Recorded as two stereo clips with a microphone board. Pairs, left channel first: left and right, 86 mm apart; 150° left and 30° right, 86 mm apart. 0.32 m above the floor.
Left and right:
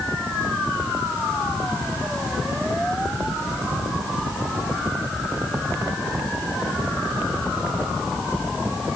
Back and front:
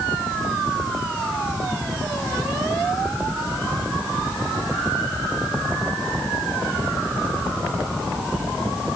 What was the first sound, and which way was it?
Only background noise.